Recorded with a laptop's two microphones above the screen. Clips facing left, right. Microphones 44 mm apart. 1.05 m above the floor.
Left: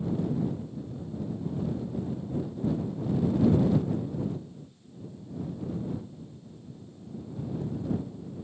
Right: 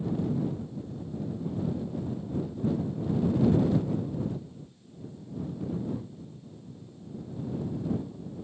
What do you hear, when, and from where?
Only background noise.